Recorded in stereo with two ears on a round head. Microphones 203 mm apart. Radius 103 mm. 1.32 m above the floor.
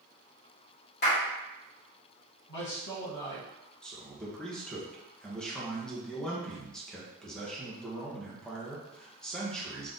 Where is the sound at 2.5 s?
70° left (ahead or behind), 1.6 m.